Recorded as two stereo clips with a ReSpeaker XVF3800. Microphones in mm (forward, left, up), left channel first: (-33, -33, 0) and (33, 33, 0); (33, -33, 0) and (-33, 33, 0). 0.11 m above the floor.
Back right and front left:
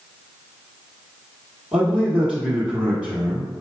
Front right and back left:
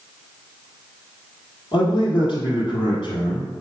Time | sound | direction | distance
1.7 | a man speaking | 45° right | 1.9 m